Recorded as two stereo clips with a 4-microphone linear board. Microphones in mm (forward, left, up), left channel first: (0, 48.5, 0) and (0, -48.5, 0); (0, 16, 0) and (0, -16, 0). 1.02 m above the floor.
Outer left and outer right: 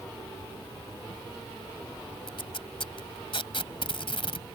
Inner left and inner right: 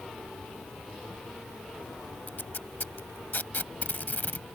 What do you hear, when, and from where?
2.3 s tape being pulled: 65° left (ahead or behind)